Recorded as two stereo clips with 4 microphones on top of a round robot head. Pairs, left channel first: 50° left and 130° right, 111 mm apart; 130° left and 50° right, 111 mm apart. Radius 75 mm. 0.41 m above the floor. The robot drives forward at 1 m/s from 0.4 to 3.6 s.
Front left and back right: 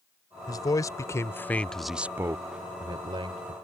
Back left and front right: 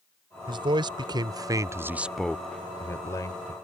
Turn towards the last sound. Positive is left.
turn(degrees=-175)